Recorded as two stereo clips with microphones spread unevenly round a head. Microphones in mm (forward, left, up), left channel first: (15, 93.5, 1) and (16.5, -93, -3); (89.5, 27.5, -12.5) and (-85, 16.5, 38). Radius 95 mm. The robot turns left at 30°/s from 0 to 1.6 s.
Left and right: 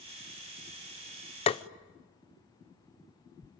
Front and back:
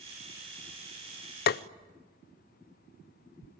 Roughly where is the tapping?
Ahead left.